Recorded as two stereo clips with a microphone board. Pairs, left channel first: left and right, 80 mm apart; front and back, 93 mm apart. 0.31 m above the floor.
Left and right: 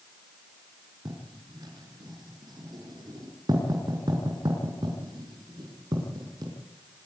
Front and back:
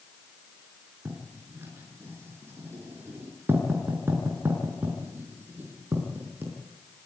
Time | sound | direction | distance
1.1 | writing | 115° right | 5.5 m